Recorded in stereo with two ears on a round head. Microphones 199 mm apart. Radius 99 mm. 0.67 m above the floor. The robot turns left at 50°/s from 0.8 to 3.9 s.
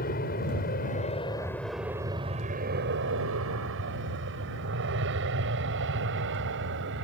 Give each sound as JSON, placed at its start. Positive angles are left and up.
{"t": 0.0, "sound": "an aircraft", "side_deg": 40}